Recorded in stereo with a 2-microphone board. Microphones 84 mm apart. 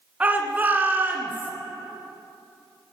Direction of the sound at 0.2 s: 15° right (ahead or behind).